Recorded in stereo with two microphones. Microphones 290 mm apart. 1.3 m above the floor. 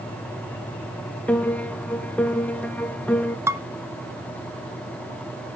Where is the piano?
5° left (ahead or behind), 0.7 m.